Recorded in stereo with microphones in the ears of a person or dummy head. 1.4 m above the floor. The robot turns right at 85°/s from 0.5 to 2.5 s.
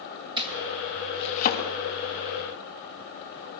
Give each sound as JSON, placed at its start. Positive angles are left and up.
{"t": 0.4, "sound": "chopping", "side_deg": -25, "distance_m": 3.0}